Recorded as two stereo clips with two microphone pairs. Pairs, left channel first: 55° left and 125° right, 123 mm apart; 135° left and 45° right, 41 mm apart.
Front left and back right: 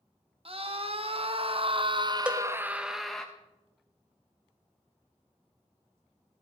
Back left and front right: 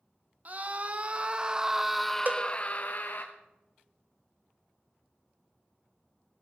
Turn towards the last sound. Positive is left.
turn(degrees=-50)